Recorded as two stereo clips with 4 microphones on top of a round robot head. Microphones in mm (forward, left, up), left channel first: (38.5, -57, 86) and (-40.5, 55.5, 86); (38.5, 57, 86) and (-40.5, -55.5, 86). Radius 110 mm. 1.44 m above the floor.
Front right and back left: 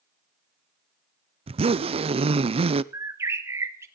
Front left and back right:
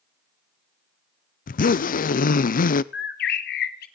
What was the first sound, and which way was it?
A zipper, 75° left.